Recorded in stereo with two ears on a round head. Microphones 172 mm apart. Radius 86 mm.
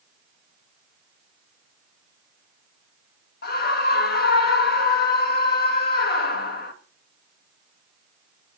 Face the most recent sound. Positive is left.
turn(degrees=55)  # may be behind; listen again after turning